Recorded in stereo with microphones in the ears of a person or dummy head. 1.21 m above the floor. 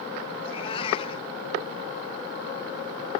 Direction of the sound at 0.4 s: 35° left (ahead or behind).